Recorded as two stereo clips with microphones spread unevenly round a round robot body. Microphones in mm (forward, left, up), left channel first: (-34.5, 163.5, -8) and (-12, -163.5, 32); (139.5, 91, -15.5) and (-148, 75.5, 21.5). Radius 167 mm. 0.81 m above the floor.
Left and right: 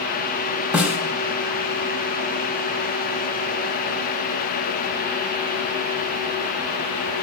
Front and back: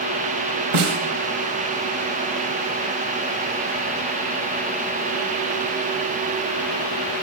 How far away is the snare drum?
About 2.5 m.